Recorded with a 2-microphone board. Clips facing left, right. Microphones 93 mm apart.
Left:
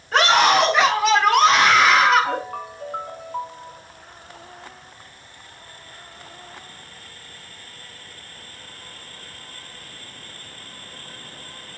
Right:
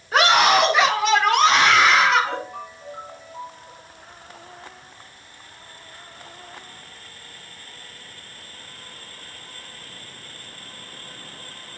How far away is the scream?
About 4 m.